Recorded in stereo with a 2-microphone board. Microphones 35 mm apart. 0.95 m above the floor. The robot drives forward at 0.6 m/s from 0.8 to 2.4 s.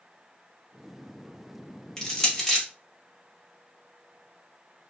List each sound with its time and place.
2.0 s crushing: 15° left (ahead or behind), 0.9 m